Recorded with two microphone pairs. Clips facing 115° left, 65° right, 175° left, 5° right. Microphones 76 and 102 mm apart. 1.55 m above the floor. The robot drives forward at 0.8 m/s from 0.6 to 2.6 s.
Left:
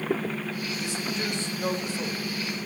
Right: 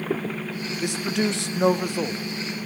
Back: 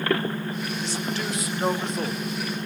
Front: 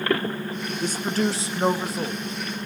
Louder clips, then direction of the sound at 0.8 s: Right 9 dB, front 9 dB; 40° right.